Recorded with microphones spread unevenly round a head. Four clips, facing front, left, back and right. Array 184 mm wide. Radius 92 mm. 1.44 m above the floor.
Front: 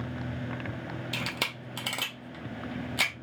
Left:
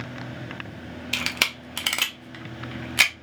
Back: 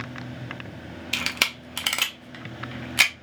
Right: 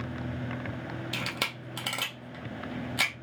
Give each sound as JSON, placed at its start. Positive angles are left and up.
{"t": 1.1, "sound": "a camera shutter", "azimuth_deg": 65, "distance_m": 0.6}